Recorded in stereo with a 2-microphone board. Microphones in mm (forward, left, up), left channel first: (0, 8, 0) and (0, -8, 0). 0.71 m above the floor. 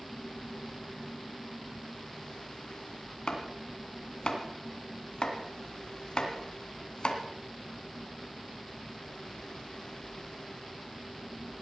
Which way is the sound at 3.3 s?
65° left (ahead or behind).